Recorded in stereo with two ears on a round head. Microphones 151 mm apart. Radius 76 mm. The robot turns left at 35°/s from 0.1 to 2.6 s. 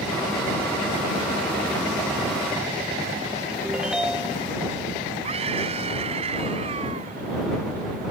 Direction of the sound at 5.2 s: 35° right (ahead or behind).